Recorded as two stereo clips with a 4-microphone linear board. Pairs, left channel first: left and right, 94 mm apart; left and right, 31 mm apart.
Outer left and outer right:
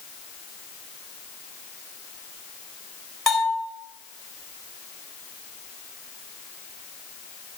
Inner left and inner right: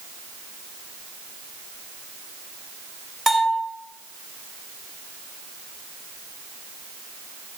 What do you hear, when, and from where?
3.3 s a bell: 5° left (ahead or behind), 2.5 m